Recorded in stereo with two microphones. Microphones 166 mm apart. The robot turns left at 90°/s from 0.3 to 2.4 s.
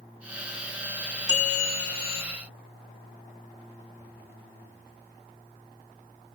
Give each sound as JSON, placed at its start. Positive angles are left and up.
{"t": 1.3, "sound": "a bell", "azimuth_deg": 35, "distance_m": 2.0}